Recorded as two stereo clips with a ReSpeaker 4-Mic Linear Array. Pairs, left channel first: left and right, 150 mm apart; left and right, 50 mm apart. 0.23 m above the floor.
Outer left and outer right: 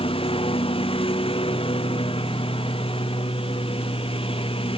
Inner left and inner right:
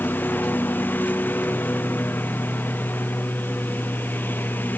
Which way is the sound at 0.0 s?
40° left (ahead or behind).